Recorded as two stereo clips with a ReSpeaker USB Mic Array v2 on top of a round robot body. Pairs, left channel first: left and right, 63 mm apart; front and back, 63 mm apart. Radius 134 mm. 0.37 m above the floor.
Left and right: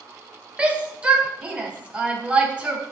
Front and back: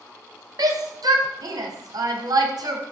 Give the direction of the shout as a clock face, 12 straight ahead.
5 o'clock.